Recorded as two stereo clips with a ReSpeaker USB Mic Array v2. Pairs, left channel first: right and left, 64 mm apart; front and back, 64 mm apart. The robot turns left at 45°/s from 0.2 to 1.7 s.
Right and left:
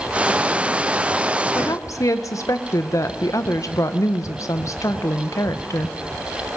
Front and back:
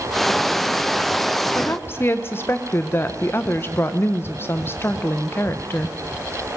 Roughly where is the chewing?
No chewing in this recording.